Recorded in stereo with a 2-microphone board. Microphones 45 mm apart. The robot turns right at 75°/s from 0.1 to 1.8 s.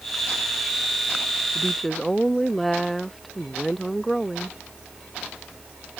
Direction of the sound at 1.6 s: 25° left (ahead or behind).